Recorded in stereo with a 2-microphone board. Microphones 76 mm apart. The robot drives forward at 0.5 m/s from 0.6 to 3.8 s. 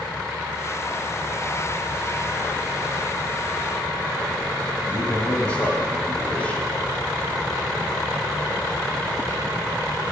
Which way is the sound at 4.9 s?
15° left (ahead or behind).